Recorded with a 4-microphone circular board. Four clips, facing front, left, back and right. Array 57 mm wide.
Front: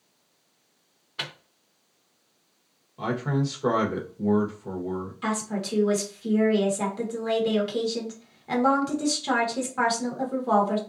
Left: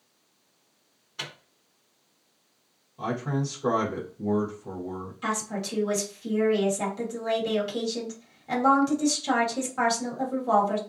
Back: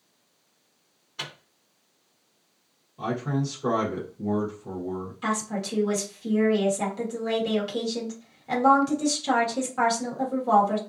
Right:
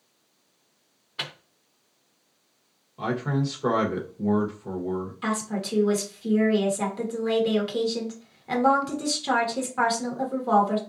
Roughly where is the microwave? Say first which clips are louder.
Right 3 dB, front 2 dB; ahead right.